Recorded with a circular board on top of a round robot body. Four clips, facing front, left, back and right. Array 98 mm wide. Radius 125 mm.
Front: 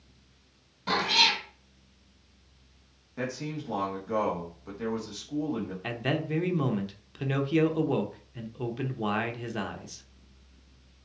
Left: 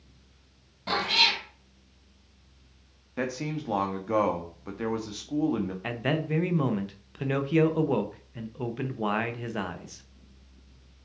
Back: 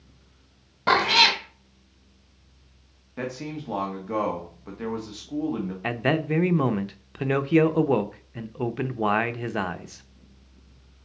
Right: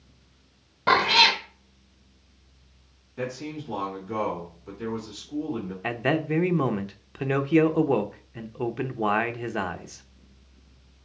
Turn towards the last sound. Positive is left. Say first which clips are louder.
# right 8 dB, back 7 dB
turn(degrees=-155)